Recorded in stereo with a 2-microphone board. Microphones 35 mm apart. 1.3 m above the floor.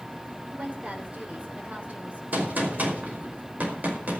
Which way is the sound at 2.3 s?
50° right (ahead or behind).